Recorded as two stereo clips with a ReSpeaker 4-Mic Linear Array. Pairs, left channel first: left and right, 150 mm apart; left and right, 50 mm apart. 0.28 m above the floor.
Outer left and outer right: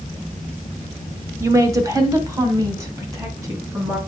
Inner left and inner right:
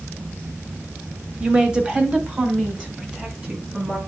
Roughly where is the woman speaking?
Centre.